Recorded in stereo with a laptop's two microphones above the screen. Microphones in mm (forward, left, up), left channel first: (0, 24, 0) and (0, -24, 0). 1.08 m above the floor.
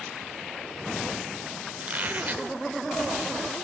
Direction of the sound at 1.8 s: 35° right (ahead or behind).